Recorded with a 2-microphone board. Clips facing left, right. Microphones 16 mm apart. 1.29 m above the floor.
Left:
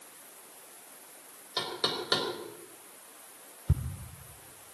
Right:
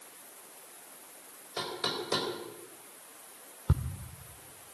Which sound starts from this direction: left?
Knocking, at 1.6 s.